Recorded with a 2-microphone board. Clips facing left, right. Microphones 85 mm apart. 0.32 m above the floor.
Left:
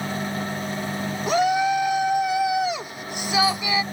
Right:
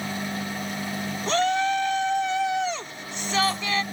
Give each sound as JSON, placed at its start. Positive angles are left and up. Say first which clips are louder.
{"t": 1.3, "sound": "a shout", "louder": "left 3 dB", "side_deg": 10}